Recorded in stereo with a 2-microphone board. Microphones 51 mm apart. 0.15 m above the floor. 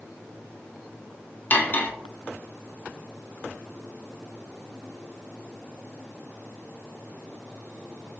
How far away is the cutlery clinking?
About 0.9 m.